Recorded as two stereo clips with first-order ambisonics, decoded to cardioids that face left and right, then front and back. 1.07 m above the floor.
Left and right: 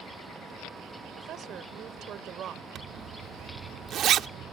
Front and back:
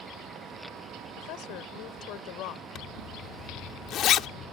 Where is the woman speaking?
35° right.